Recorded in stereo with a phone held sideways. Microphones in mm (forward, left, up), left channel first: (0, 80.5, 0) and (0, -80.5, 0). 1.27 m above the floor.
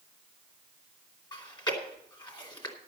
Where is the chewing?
30° left (ahead or behind), 2.5 m.